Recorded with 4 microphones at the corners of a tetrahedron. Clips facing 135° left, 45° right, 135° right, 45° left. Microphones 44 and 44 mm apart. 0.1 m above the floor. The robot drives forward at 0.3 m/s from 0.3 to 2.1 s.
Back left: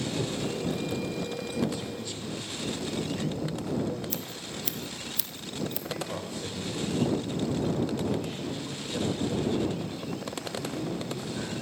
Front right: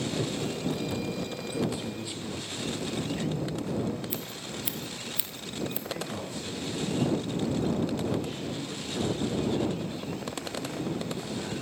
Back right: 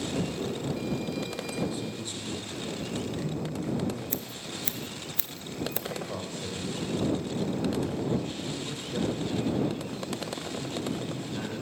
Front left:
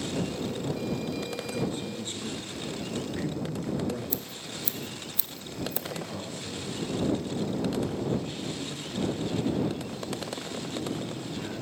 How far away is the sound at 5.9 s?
About 6 m.